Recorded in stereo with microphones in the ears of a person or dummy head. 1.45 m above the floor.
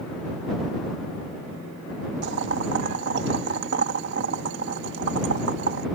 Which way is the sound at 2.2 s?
70° right (ahead or behind).